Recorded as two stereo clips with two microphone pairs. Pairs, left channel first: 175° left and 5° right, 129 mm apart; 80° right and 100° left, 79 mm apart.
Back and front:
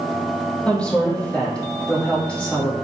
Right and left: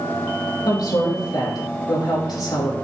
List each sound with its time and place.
0.7 s a woman speaking: 105° right, 4 m